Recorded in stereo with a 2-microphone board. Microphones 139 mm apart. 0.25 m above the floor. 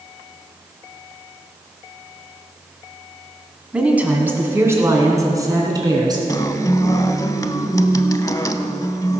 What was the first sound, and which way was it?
A woman speaking, 10° right (ahead or behind).